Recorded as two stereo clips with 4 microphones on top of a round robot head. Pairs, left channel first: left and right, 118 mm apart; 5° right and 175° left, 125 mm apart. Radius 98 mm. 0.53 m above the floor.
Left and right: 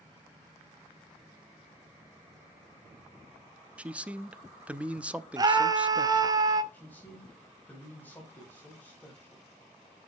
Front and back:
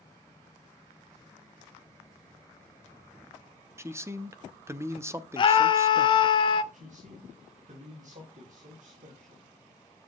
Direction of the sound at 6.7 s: 165° left.